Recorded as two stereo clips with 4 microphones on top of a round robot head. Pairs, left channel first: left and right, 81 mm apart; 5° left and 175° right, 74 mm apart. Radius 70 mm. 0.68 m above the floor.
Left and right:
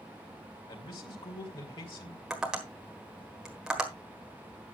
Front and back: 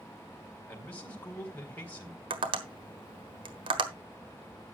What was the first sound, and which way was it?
A man speaking, 75° left.